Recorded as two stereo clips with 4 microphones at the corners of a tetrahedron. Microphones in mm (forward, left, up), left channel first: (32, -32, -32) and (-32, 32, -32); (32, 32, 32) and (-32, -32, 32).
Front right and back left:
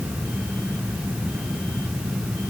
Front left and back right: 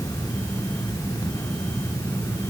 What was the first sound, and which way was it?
Only background noise.